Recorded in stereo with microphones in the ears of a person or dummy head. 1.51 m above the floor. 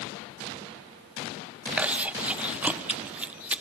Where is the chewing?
10° right (ahead or behind), 0.8 m.